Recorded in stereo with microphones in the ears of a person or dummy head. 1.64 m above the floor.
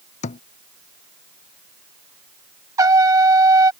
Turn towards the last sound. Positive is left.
turn(degrees=-25)  # may be behind; listen again after turning